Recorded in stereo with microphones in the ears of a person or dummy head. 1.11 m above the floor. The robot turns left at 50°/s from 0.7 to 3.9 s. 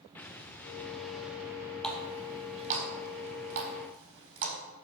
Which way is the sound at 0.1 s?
20° left.